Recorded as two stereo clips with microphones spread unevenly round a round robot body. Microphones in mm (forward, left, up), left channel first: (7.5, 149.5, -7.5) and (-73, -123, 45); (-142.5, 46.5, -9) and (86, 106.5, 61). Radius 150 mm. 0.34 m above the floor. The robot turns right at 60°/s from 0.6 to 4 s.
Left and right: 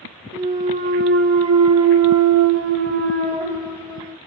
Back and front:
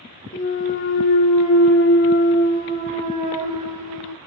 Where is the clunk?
170° left, 0.7 m; by 4.2 s 15° left, 0.7 m.